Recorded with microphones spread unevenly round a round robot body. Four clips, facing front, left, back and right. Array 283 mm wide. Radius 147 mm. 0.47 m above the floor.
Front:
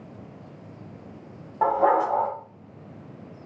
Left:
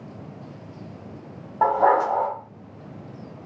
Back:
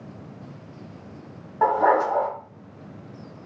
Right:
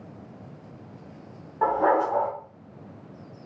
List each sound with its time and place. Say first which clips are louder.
1.6 s a dog barking: left 3 dB, back 1 dB; 95° left, 1.1 m